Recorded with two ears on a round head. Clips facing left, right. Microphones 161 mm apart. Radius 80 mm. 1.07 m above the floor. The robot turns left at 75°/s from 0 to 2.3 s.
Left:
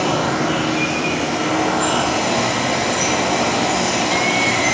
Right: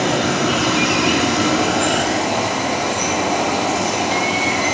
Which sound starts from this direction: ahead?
Running water, at 0.0 s.